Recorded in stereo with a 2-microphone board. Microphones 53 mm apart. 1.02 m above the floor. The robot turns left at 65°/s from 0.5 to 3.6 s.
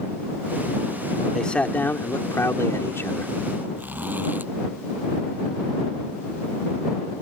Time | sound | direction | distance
1.3 | a man speaking | 170° left | ?
3.8 | a zipper | 40° right (ahead or behind) | ?